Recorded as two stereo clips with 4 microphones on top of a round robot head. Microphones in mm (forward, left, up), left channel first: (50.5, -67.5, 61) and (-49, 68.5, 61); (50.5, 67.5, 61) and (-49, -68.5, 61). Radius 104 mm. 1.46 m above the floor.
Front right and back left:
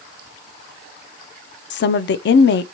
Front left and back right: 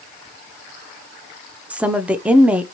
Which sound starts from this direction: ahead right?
A woman speaking, at 1.7 s.